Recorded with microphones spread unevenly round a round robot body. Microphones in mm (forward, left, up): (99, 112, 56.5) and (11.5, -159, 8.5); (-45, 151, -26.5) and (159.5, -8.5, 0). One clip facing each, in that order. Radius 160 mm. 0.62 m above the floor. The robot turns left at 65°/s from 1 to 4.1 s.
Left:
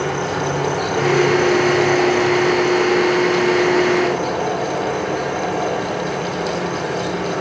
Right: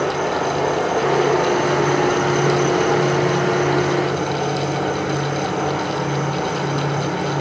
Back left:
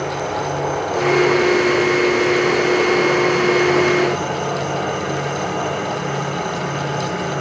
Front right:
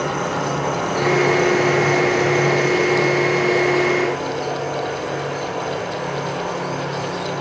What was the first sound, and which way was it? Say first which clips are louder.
An insect: right 1 dB, even; 20° left.